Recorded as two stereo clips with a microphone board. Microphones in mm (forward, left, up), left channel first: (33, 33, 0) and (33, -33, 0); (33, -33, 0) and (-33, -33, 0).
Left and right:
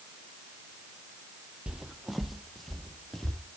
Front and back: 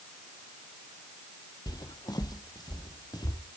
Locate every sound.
1.7 s footsteps: 10° right, 1.0 m; by 3.4 s 5° left, 3 m